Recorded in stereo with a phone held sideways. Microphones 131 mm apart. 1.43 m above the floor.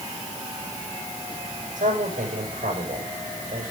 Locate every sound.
1.8 s a man speaking: 80° right, 7.5 m